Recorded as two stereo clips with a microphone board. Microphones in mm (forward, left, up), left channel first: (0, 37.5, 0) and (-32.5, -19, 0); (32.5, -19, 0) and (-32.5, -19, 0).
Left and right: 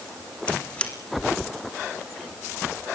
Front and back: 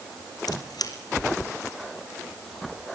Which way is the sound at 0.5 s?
10° right.